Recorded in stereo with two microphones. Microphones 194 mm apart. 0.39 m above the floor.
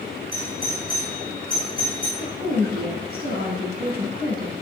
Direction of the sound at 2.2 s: 55° right (ahead or behind).